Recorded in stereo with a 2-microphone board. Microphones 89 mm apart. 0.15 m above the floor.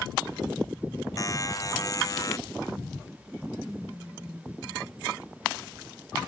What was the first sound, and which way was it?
A buzzer, 40° left (ahead or behind).